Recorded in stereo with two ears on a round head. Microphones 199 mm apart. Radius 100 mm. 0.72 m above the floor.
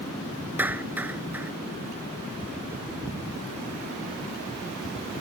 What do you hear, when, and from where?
0.6 s a clap: 10° right (ahead or behind)